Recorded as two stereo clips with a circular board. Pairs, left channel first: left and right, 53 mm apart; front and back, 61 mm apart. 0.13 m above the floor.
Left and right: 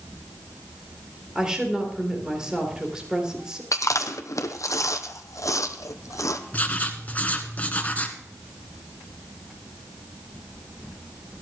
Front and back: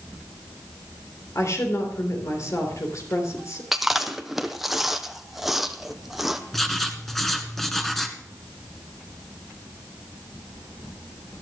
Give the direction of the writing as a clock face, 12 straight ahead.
9 o'clock.